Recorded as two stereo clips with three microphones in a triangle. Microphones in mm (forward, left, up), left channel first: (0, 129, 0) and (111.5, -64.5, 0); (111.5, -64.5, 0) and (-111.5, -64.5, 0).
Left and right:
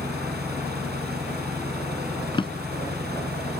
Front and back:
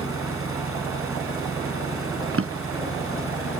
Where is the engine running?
15° right.